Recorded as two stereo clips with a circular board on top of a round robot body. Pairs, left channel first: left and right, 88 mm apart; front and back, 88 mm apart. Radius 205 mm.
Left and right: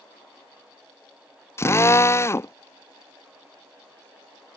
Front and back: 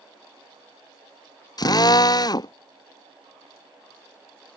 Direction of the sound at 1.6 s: 35° left.